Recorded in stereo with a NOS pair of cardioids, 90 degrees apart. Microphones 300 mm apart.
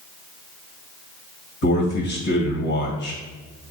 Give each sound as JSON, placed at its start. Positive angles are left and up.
{"t": 1.6, "sound": "a man speaking", "azimuth_deg": 45, "distance_m": 2.0}